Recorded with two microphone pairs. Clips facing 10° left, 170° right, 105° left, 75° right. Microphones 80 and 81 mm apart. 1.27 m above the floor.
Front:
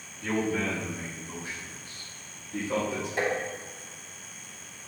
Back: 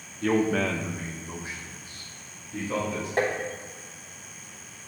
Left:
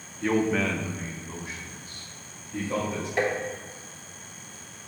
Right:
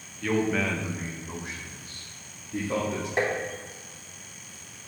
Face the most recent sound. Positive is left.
turn(degrees=-140)